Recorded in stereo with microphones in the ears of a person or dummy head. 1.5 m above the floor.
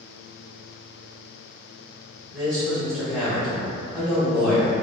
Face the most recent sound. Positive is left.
turn(degrees=0)  # may be behind; listen again after turning